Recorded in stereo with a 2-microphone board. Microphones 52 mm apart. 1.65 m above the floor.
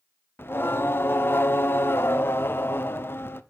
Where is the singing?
45° left (ahead or behind), 0.6 m.